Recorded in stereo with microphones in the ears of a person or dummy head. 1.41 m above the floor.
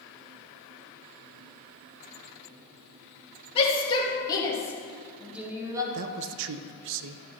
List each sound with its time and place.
3.5 s a shout: 30° left (ahead or behind), 3 m; by 5.8 s 20° right (ahead or behind), 1.8 m
5.9 s a man speaking: 75° right (ahead or behind), 0.5 m